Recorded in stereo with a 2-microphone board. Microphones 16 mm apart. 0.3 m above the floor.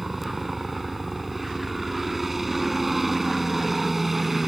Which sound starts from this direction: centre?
A helicopter, at 0.0 s.